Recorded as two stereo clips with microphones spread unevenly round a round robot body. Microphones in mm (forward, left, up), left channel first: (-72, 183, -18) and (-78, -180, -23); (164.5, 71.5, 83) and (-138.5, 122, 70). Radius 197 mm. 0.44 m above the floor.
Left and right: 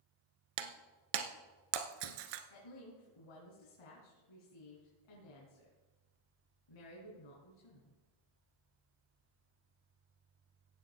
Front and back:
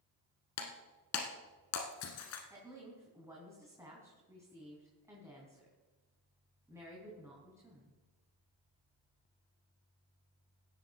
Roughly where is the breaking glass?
Ahead right.